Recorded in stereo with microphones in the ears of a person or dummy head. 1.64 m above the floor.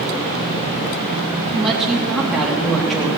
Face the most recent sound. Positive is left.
turn(degrees=-5)  # may be behind; listen again after turning